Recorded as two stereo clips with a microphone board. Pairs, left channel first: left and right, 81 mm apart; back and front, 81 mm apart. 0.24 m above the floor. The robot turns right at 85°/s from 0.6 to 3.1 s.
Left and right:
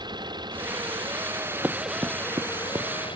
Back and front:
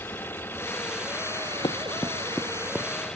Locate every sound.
0.0 s an engine running: 115° right; by 3.2 s 100° left
1.6 s running footsteps: 165° right; by 2.9 s 55° right